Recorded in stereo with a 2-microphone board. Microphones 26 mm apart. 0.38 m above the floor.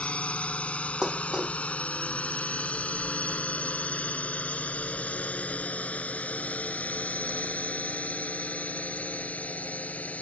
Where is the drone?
55° left (ahead or behind); by 10.2 s 70° left (ahead or behind).